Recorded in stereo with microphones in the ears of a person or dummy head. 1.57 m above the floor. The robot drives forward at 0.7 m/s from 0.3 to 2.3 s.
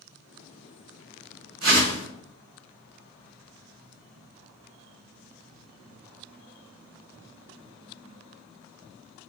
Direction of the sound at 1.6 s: 75° right (ahead or behind).